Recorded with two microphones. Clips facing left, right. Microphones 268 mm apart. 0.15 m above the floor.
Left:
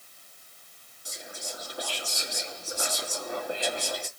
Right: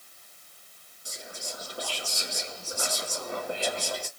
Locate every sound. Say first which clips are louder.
1.1 s whispering: even; 30° right (ahead or behind), 2.5 m